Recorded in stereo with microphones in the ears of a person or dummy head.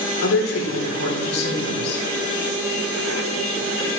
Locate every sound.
0.2 s a woman speaking: 85° left, 5 m